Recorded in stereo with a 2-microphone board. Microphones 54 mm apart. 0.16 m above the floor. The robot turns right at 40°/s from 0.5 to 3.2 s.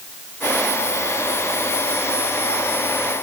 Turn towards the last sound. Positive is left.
No sound to turn to.